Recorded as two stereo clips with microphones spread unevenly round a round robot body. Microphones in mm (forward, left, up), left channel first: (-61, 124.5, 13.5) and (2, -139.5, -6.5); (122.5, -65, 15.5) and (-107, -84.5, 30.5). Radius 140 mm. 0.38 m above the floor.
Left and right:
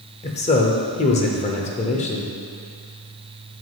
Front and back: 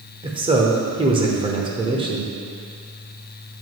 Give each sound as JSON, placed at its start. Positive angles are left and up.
{"t": 0.2, "sound": "a man speaking", "azimuth_deg": 140, "distance_m": 1.0}